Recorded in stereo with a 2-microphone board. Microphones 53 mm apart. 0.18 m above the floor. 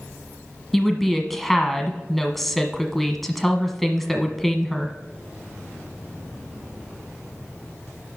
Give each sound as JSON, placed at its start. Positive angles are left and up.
{"t": 0.7, "sound": "a woman speaking", "side_deg": 5, "distance_m": 1.2}